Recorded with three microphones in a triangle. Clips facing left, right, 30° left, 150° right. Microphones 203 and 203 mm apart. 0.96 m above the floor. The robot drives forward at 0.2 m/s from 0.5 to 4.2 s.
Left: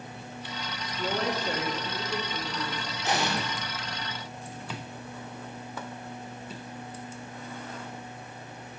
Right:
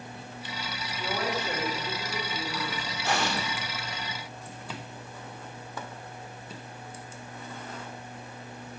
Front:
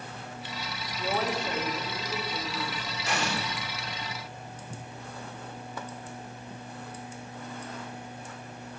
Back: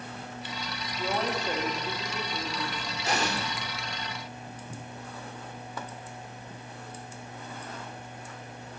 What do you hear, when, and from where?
1.0 s a woman speaking: 120° left, 1.8 m; by 2.8 s 130° left, 2 m
3.0 s an explosion: 160° left, 1.1 m